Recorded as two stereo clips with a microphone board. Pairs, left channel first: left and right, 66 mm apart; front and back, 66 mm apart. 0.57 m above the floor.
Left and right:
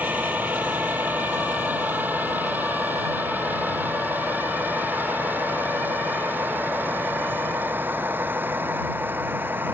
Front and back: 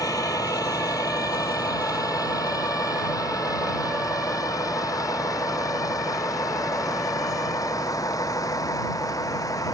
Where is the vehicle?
25° right; by 9.7 s 30° right.